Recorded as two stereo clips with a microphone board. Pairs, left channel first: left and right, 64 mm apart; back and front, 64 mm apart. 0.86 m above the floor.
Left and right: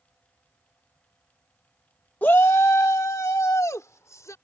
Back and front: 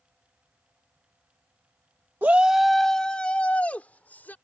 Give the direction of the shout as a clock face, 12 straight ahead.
11 o'clock.